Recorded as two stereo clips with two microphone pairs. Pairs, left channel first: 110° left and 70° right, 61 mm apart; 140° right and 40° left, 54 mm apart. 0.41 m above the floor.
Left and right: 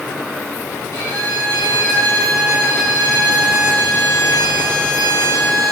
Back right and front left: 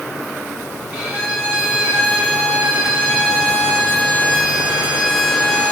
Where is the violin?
110° left, 2.5 m.